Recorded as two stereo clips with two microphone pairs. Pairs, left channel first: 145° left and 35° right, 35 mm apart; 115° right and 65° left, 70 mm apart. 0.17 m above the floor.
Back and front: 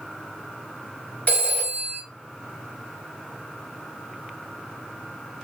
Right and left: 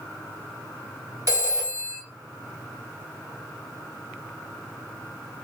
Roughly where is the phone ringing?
Left.